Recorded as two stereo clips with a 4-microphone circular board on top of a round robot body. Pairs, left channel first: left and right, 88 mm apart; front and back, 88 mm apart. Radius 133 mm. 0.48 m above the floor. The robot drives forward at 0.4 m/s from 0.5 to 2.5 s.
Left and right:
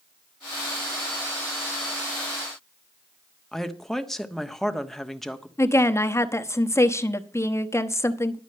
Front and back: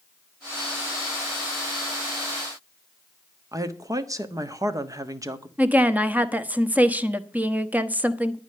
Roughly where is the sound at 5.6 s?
Behind left.